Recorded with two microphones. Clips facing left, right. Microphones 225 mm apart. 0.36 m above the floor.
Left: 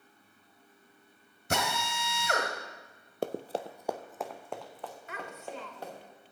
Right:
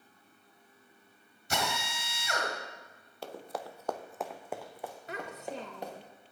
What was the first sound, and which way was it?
A drill, 55° left (ahead or behind).